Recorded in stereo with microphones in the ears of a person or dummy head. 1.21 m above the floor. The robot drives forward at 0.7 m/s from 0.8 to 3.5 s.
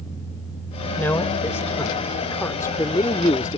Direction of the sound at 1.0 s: 10° left (ahead or behind).